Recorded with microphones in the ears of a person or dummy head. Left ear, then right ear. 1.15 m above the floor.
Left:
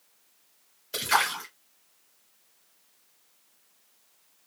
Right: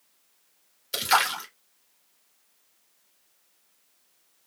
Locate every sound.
0.9 s a splash: 25° right (ahead or behind), 1.6 m